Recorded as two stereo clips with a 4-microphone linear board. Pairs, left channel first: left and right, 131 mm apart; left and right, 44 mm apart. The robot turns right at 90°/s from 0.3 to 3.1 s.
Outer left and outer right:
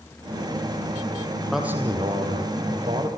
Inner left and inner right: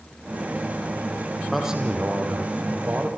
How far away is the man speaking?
About 5.5 m.